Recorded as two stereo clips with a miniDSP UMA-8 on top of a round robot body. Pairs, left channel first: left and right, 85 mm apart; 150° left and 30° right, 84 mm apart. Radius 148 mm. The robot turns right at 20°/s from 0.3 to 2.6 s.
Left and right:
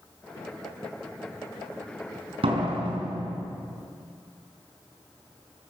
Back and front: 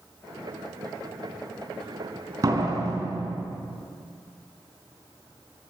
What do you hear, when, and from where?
2.4 s a door slam: 80° right, 5 m